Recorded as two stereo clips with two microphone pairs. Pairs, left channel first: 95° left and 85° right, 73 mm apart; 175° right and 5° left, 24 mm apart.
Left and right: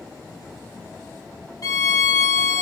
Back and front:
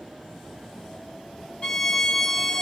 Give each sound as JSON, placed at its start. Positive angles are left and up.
{"t": 1.6, "sound": "a violin", "azimuth_deg": 125, "distance_m": 2.5}